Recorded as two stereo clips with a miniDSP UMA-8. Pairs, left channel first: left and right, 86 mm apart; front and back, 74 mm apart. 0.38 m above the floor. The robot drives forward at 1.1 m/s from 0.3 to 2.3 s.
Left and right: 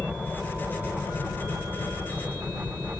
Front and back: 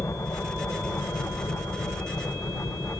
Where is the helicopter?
10° left.